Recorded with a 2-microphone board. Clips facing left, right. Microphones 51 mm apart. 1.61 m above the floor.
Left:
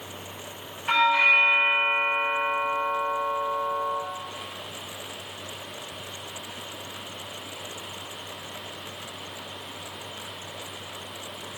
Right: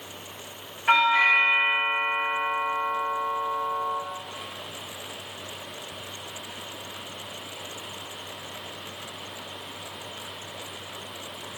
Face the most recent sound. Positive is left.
turn(degrees=-65)  # may be behind; listen again after turning